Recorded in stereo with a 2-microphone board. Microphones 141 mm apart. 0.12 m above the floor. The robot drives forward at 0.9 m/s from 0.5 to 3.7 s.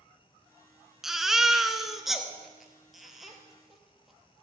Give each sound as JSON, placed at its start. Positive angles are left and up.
{"t": 1.0, "sound": "a baby crying", "side_deg": 0, "distance_m": 0.8}